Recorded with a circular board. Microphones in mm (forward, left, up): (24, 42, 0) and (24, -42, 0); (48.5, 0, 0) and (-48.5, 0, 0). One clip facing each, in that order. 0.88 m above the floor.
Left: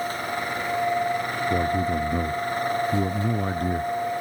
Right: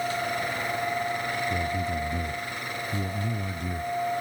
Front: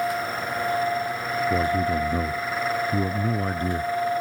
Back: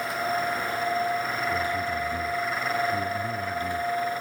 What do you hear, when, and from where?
1.5 s a man speaking: 50° left